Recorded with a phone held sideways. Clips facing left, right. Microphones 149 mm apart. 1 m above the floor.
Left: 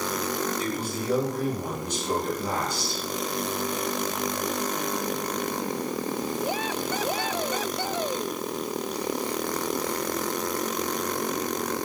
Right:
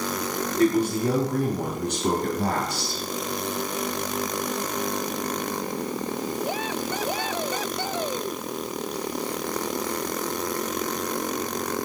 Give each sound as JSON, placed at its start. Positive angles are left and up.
{"t": 0.6, "sound": "a man speaking", "side_deg": -85, "distance_m": 8.0}